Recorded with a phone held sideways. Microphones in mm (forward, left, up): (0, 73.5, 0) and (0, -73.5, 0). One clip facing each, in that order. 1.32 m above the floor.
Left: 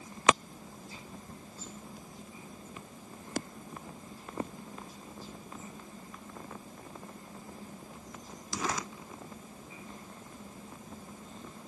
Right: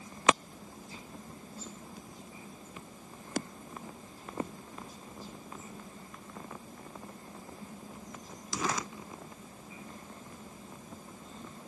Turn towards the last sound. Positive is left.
No sound to turn to.